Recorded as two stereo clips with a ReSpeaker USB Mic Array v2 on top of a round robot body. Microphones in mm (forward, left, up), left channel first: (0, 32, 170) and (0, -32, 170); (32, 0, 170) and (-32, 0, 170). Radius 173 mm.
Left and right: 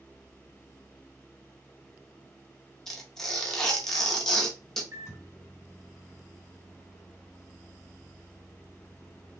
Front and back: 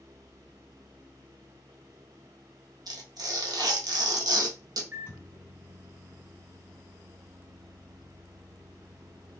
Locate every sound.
2.9 s tearing paper: 170° left, 0.7 m
4.9 s a microwave: 120° right, 2.0 m